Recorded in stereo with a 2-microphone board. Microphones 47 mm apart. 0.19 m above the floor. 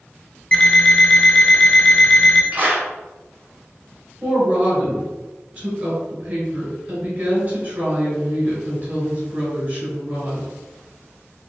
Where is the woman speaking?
35° right (ahead or behind), 1.6 m.